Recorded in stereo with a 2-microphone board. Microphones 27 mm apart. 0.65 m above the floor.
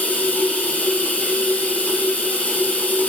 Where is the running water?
75° left (ahead or behind), 8 m.